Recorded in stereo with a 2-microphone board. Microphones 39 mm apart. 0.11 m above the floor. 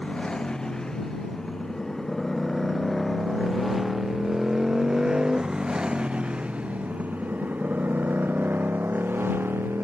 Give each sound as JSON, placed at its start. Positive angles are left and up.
{"t": 0.0, "sound": "a motorcycle", "side_deg": 20}